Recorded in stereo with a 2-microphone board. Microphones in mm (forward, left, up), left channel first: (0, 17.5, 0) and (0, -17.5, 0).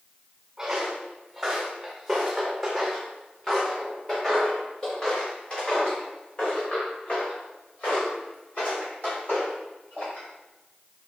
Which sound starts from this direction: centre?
Footsteps, at 0.6 s.